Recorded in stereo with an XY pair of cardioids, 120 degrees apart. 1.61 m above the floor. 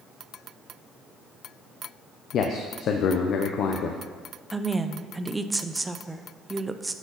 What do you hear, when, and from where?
2.3 s a man speaking: 60° left, 0.7 m
4.5 s a woman speaking: 15° right, 0.6 m